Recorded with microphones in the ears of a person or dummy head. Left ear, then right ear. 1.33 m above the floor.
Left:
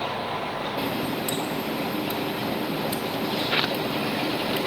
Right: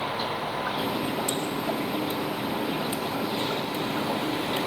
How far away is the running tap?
About 1.2 m.